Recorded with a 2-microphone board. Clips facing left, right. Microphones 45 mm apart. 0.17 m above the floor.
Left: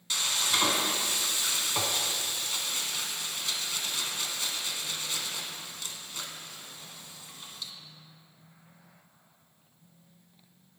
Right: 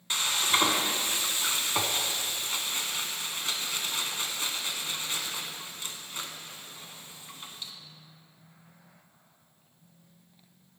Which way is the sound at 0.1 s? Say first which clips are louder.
Right 2 dB; 30° right (ahead or behind).